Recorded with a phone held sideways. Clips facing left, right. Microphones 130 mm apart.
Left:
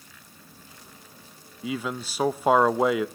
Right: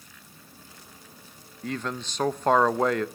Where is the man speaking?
5° left (ahead or behind), 0.5 m.